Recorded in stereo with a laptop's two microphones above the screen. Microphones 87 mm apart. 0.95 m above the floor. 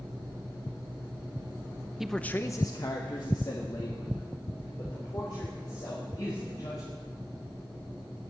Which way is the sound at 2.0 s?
5° right (ahead or behind).